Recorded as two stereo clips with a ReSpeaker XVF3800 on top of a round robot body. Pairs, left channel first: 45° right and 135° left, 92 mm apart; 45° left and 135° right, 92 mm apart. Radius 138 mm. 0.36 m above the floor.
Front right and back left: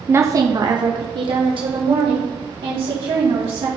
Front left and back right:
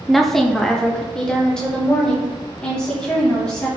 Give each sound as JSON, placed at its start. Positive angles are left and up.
{"t": 0.1, "sound": "a woman speaking", "azimuth_deg": 135, "distance_m": 0.9}